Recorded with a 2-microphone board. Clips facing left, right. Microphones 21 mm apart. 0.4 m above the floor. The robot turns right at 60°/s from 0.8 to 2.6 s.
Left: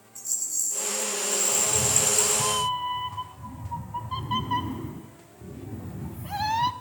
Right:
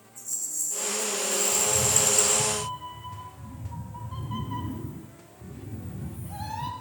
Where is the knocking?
No knocking in this recording.